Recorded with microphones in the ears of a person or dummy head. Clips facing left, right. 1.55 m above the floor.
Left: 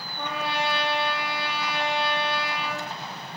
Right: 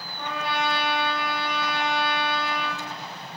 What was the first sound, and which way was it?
A trumpet, 35° left (ahead or behind).